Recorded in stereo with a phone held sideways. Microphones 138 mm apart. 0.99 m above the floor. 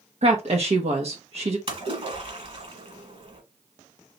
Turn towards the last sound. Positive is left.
turn(degrees=-45)  # may be behind; listen again after turning